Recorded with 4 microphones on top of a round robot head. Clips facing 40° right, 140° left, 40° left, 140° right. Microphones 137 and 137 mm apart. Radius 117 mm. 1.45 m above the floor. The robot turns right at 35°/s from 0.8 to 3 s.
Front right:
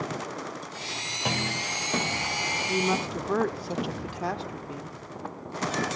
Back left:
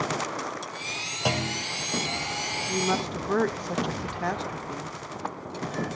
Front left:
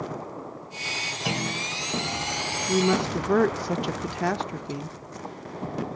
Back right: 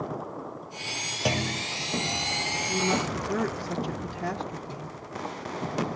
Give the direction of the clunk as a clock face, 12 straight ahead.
5 o'clock.